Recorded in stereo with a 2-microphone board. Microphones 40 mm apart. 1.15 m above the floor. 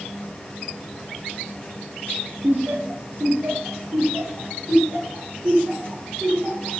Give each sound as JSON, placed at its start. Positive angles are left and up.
{"t": 2.4, "sound": "laughter", "side_deg": -60, "distance_m": 0.9}